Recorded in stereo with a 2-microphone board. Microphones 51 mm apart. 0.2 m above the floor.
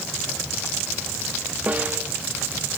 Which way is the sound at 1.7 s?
35° right (ahead or behind).